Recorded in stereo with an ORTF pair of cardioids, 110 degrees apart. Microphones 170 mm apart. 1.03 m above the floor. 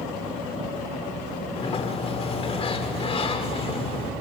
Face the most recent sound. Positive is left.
turn(degrees=35)